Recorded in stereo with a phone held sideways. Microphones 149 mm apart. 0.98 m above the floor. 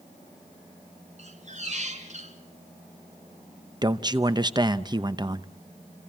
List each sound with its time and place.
1.2 s a squeak: 50° right (ahead or behind), 2 m
3.8 s a man speaking: 30° right (ahead or behind), 0.8 m